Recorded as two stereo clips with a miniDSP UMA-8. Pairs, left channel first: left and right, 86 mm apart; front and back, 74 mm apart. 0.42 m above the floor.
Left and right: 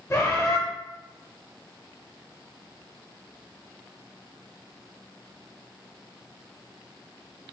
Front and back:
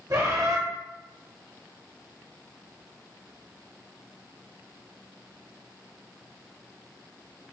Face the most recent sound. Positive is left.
turn(degrees=145)